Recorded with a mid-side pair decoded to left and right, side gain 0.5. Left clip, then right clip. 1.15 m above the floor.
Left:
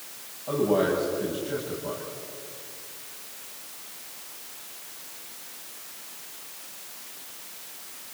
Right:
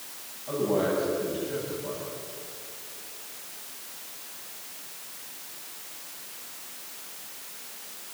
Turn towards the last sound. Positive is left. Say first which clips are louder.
# left 3 dB
turn(degrees=35)